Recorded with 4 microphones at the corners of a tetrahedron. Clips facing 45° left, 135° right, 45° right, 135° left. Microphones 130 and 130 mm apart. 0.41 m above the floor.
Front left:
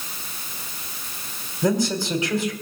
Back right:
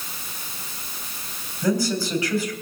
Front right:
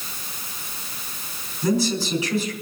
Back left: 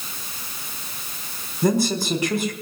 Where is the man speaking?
110° left, 3.5 m.